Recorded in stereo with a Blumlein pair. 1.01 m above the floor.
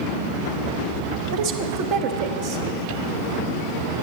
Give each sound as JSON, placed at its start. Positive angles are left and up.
{"t": 1.3, "sound": "a woman speaking", "azimuth_deg": -40, "distance_m": 1.0}